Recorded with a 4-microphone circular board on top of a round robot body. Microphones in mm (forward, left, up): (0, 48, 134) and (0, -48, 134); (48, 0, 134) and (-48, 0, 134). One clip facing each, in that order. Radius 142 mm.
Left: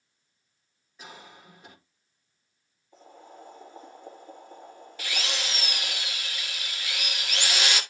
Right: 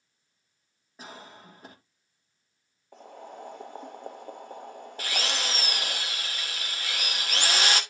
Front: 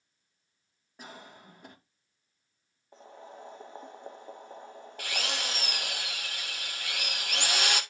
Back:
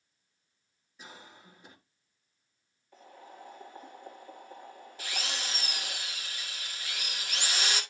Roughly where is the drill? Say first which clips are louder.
Right 2 dB, front 3 dB; ahead right.